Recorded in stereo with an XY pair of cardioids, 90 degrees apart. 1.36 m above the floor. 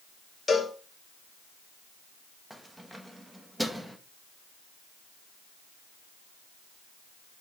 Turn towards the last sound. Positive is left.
turn(degrees=-10)